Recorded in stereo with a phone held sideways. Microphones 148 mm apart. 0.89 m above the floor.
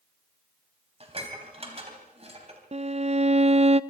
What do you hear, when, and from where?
1.0 s dishes clattering: 40° right (ahead or behind), 3.5 m
2.7 s a violin: 45° right (ahead or behind), 0.5 m